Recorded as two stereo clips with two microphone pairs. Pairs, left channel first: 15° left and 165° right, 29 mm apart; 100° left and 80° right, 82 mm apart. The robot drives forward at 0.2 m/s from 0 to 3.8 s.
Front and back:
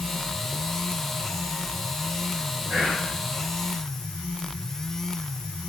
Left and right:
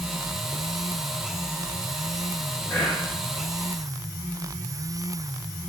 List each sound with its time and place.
2.7 s whispering: 140° left, 1.5 m